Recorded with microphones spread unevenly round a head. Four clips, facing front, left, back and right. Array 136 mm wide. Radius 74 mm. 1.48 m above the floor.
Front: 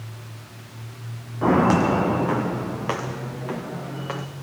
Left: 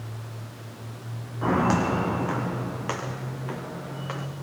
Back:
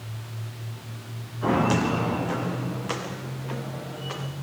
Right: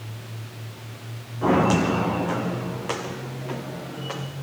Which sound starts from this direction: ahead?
Footsteps, at 1.4 s.